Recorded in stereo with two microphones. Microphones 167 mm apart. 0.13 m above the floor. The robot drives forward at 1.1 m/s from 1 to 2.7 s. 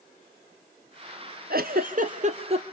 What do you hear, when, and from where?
1.5 s a giggle: 65° right (ahead or behind), 1.3 m; by 2.6 s 40° right (ahead or behind), 1.9 m